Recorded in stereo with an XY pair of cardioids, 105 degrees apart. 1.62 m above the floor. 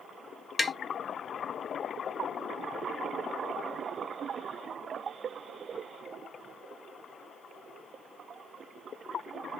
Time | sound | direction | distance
0.6 | tapping | 25° left | 0.5 m